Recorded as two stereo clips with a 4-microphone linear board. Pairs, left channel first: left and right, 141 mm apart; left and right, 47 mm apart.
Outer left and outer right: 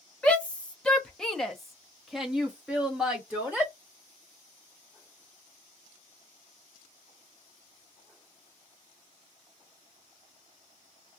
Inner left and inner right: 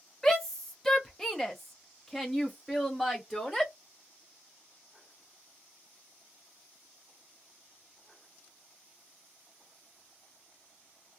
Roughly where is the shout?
Centre.